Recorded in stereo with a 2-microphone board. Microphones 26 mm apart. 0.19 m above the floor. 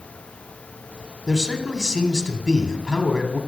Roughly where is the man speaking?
Left.